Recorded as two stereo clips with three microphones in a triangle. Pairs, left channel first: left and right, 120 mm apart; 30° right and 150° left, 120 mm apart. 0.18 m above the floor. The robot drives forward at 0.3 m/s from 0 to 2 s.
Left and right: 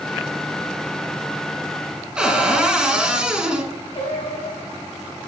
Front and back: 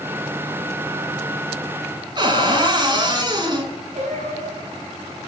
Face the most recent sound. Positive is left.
turn(degrees=125)